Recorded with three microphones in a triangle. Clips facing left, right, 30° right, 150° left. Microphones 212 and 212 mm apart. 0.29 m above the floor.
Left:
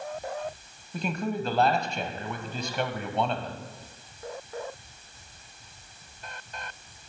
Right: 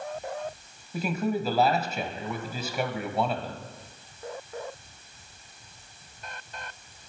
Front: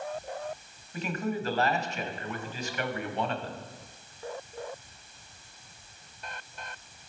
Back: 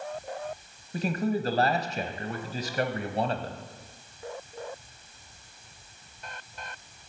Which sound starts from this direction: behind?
A man speaking, at 0.9 s.